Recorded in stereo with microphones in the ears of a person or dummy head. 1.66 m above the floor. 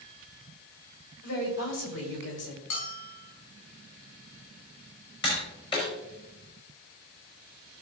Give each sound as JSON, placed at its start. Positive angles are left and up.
{"t": 1.2, "sound": "a woman speaking", "side_deg": 60, "distance_m": 4.0}
{"t": 2.7, "sound": "a bell", "side_deg": 60, "distance_m": 4.5}
{"t": 5.2, "sound": "tapping", "side_deg": 25, "distance_m": 5.0}